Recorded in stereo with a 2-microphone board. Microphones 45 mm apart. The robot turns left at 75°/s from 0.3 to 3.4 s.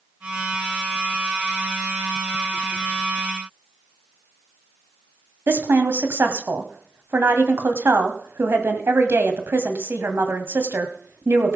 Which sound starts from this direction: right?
A woman speaking, at 5.5 s.